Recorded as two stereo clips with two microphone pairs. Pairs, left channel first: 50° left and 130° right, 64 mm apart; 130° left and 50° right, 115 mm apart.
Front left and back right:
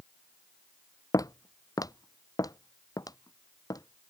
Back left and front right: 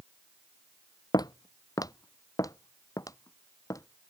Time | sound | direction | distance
1.1 | footsteps | 80° left | ?